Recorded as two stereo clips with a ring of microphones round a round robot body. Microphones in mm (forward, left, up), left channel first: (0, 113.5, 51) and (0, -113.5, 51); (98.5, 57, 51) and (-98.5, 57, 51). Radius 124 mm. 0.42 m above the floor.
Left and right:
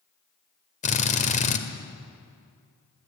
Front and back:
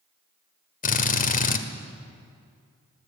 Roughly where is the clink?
No clink in this recording.